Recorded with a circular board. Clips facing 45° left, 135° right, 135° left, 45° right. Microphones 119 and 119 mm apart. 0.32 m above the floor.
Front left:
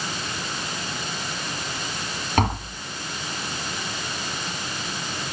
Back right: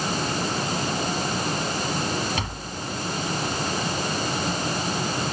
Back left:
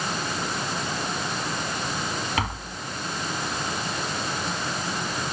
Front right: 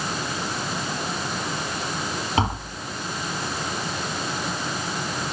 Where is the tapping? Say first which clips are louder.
Front left 8 dB, front right 5 dB; 15° left.